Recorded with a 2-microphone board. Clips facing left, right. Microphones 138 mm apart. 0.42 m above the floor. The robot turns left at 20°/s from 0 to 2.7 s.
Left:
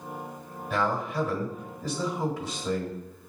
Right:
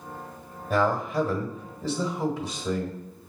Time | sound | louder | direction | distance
0.7 | a man speaking | right 4 dB | 120° right | 1.5 m